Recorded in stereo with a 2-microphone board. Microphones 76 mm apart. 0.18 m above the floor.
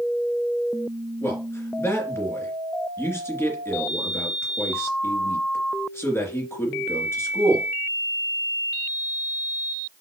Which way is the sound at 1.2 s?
30° left (ahead or behind).